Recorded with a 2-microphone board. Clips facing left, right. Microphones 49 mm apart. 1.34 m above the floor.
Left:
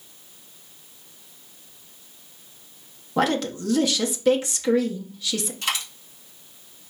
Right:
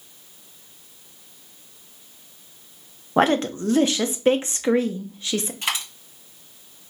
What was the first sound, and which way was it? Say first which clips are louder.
A woman speaking: right 4 dB; 35° right (ahead or behind).